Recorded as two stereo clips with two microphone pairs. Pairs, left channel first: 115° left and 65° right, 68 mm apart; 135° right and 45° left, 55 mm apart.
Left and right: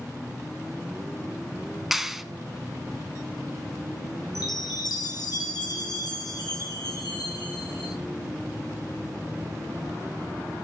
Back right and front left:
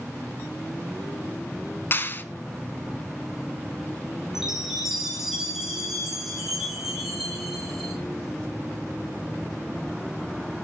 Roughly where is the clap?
Behind right.